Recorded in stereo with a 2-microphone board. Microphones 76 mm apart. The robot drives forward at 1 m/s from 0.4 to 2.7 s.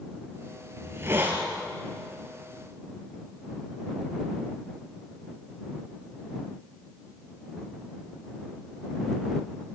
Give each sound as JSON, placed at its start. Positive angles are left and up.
{"t": 0.8, "sound": "a hiss", "side_deg": -35, "distance_m": 2.5}